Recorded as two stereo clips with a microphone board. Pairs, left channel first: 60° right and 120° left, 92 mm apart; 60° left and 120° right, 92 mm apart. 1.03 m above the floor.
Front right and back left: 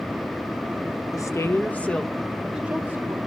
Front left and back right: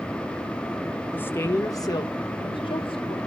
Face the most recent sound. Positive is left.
turn(degrees=55)